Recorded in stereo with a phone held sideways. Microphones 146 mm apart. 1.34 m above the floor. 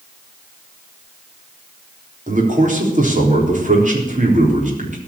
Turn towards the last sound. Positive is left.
turn(degrees=-60)  # may be behind; listen again after turning